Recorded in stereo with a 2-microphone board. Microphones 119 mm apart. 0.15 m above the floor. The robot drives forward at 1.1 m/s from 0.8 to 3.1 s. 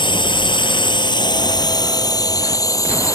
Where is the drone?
40° left (ahead or behind); by 3.1 s 30° left (ahead or behind).